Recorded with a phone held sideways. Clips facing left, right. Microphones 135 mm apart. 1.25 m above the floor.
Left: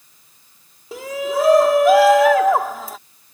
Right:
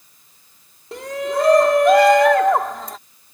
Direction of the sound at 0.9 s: 5° left (ahead or behind).